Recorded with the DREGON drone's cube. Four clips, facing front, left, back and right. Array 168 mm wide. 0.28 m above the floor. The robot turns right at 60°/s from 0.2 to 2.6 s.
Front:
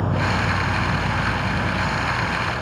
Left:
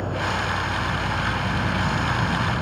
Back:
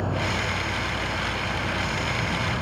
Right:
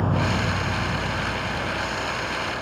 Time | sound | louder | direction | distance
0.0 | an insect | right 2 dB, front 5 dB | 50° right | ?